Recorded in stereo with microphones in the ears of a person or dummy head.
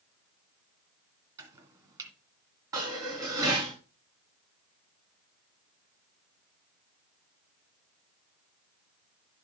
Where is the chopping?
15° right (ahead or behind), 2.0 m.